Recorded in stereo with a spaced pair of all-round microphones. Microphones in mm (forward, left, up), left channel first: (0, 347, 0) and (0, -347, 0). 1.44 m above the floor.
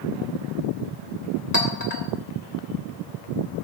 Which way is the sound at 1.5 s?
70° left (ahead or behind).